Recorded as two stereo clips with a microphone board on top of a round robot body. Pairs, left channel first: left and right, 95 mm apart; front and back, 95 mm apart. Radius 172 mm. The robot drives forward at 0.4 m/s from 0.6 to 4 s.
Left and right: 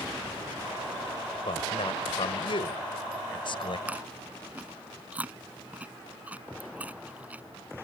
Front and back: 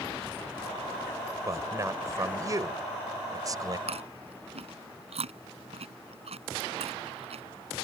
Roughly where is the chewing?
Behind.